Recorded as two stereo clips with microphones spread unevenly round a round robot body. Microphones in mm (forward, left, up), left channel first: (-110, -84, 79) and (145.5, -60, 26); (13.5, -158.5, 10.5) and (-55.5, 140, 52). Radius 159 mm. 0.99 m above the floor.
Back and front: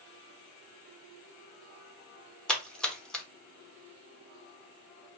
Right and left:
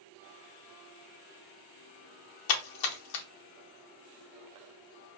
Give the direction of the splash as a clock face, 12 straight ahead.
3 o'clock.